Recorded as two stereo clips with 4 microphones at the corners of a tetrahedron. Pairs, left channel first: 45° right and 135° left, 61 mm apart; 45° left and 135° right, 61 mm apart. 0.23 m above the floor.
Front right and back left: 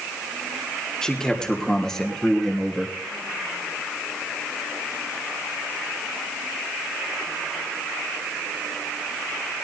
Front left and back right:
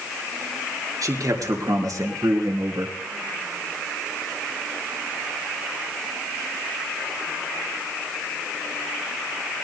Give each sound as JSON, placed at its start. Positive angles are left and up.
{"t": 1.0, "sound": "a man speaking", "azimuth_deg": -125, "distance_m": 4.0}